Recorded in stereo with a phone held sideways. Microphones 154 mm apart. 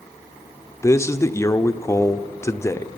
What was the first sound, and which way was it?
A man speaking, 20° left (ahead or behind).